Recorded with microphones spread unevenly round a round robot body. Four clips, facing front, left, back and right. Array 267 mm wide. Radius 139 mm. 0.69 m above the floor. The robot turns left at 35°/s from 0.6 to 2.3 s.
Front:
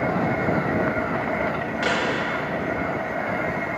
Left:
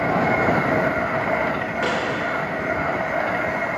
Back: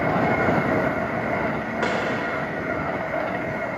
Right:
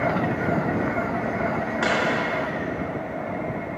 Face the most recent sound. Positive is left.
turn(degrees=180)